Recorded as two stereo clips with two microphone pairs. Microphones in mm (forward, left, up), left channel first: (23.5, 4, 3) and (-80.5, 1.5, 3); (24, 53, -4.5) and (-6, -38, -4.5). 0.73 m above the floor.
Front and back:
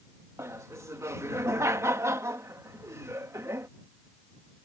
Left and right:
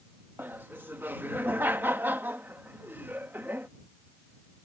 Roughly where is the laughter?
Behind right.